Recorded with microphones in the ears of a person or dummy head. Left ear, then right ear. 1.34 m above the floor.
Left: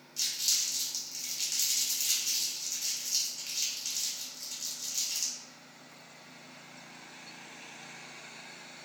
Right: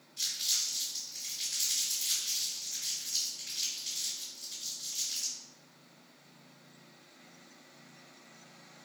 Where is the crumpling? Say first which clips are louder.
Left 2 dB; 65° left (ahead or behind), 1.4 m.